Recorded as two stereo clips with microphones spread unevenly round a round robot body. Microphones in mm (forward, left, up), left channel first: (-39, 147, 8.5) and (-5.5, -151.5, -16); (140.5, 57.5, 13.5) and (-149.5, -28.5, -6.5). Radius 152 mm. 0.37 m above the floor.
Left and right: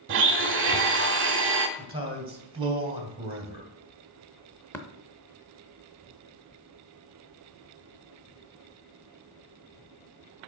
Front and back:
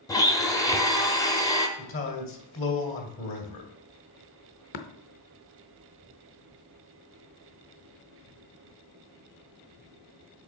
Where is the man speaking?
20° right, 2 m.